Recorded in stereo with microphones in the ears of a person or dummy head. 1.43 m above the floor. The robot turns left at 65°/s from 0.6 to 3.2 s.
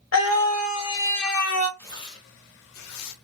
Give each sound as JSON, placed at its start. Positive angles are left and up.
{"t": 0.1, "sound": "a scream", "azimuth_deg": 100, "distance_m": 0.9}
{"t": 1.8, "sound": "tearing paper", "azimuth_deg": 170, "distance_m": 0.5}